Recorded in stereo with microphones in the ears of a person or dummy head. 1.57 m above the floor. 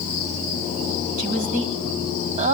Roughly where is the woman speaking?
Right.